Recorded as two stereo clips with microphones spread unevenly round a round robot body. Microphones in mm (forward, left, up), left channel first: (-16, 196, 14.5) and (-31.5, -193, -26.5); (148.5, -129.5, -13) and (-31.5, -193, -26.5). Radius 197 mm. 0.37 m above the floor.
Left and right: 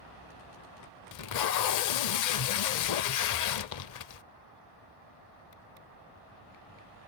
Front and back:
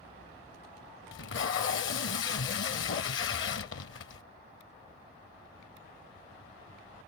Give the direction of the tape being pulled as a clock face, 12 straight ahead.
11 o'clock.